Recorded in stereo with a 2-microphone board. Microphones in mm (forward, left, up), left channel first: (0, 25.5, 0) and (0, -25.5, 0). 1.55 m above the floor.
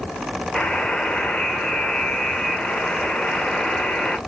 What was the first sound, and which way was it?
A buzzer, 20° left (ahead or behind).